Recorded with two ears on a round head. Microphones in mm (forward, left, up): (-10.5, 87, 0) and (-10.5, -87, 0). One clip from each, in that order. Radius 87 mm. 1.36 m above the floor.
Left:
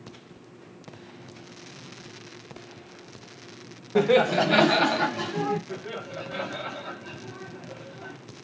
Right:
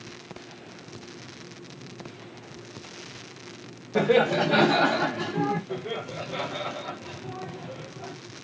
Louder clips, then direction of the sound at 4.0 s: Left 1 dB; 15° left (ahead or behind).